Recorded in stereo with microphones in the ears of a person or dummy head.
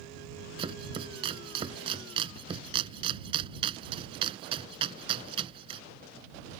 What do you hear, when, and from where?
0.6 s chopping: 30° right (ahead or behind)